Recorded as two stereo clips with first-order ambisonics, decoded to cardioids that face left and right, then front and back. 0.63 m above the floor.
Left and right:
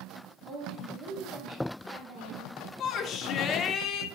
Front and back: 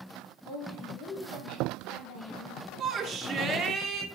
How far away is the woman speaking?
About 1.6 m.